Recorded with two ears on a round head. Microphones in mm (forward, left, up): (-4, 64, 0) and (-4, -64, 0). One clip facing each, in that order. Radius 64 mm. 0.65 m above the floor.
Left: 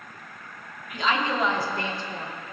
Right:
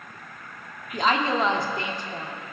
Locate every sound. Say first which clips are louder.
0.9 s a woman speaking: right 2 dB; 40° right (ahead or behind), 1.1 m; by 2.3 s 10° right (ahead or behind), 1.6 m